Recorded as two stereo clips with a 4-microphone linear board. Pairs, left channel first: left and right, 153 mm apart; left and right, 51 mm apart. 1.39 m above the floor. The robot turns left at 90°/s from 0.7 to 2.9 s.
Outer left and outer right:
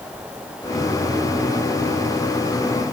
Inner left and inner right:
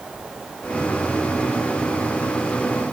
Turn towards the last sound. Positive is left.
No sound to turn to.